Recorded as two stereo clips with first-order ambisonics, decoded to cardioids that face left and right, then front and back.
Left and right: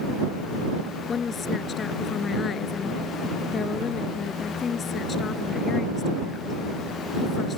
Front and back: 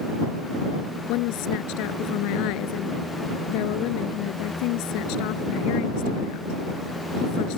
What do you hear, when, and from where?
1.1 s a woman speaking: 20° left